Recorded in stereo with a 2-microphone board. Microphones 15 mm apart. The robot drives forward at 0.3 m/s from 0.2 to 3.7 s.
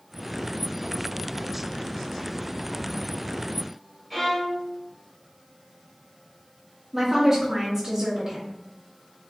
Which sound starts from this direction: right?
A woman speaking, at 6.9 s.